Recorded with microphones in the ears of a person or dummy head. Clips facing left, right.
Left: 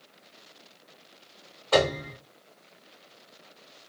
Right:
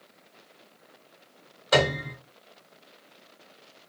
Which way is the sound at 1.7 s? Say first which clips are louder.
Even; 25° right (ahead or behind).